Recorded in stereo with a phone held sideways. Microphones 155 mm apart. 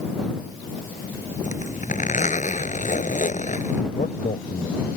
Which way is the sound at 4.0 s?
55° left (ahead or behind).